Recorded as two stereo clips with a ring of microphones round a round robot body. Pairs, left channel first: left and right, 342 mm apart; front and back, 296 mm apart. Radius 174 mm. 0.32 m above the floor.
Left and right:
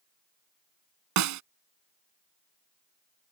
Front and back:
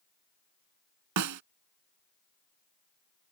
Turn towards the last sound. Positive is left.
turn(degrees=-135)